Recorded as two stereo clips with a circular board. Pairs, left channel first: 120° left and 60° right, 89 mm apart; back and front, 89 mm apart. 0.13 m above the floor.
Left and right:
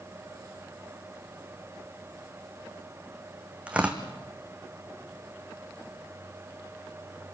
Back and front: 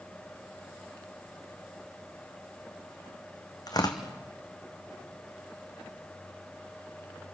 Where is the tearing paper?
135° right, 2.5 m.